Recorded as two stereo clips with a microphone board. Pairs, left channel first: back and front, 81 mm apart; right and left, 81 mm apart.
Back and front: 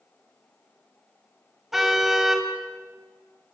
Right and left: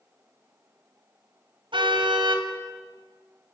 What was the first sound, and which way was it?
A car horn, 85° left.